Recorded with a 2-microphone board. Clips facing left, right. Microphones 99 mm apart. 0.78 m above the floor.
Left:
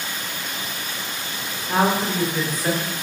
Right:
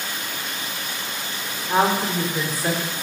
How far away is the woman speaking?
About 2.0 m.